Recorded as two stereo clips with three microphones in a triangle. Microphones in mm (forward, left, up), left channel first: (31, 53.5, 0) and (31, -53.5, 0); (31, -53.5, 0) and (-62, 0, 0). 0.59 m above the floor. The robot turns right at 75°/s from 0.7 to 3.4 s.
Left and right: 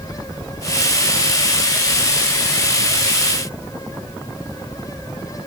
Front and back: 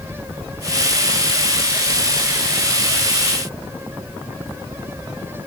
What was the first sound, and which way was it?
Only background noise.